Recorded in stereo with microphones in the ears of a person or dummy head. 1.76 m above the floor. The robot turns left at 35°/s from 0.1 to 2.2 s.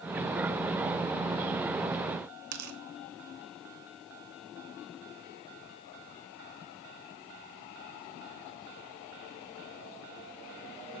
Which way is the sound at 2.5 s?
50° right (ahead or behind).